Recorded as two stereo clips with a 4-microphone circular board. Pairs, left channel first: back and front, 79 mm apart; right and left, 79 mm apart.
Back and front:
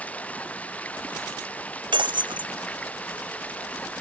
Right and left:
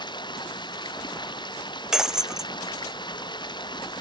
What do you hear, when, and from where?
0.0 s running water: 110° right
1.9 s breaking glass: 5° left